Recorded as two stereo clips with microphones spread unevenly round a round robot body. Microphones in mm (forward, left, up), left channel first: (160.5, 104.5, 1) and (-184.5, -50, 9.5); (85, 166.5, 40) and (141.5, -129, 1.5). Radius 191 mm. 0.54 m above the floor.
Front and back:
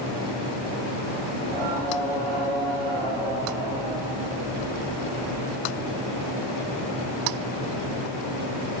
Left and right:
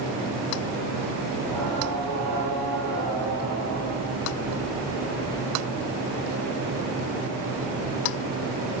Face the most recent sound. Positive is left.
turn(degrees=-165)